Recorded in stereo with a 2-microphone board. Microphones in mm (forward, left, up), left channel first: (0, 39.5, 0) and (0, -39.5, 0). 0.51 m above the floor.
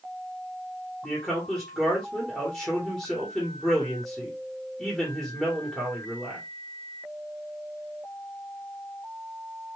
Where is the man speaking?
5° left (ahead or behind), 1.5 m.